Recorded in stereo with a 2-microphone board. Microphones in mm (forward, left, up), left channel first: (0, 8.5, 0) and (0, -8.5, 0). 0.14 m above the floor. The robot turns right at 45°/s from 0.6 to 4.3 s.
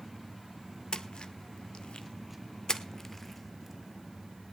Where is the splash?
55° left (ahead or behind), 0.9 m; by 4.5 s 30° right (ahead or behind), 0.9 m.